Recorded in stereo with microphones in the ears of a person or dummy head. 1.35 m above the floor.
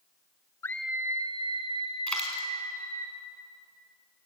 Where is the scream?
10° left (ahead or behind), 0.5 m; by 3.1 s 45° right (ahead or behind), 2.5 m.